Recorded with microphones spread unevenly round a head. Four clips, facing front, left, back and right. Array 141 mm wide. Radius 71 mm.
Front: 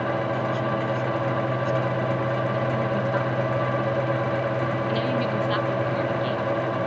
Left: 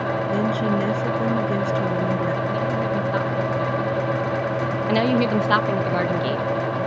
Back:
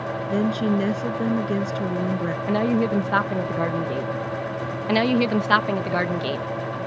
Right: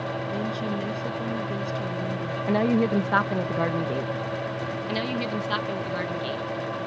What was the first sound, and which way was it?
A woman speaking, 150° left.